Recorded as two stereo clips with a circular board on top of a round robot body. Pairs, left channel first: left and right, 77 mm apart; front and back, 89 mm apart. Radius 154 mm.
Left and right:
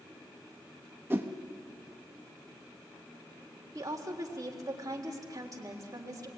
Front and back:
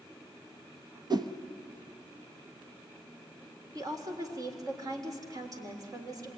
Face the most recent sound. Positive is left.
turn(degrees=-130)